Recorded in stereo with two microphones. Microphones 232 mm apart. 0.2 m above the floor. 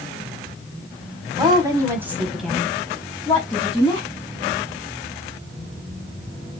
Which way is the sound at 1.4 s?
20° right (ahead or behind).